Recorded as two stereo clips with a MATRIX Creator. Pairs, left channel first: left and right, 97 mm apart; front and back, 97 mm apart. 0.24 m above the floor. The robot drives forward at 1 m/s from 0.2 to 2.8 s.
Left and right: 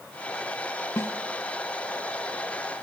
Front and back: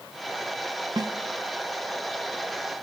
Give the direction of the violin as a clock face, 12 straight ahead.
I don't hear a violin.